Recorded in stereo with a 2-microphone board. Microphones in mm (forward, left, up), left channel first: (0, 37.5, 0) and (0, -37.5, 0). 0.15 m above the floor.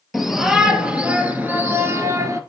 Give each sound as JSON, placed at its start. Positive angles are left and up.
{"t": 0.1, "sound": "a shout", "side_deg": 0, "distance_m": 3.0}